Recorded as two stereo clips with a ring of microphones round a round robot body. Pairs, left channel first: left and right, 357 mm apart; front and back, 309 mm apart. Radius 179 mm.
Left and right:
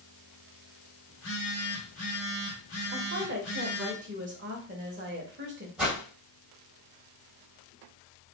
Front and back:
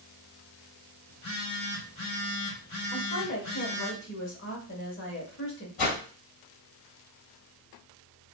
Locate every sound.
1.1 s a phone buzzing: 40° left, 2 m
2.9 s a woman speaking: 40° right, 1.1 m
5.8 s a whoosh: 5° right, 3 m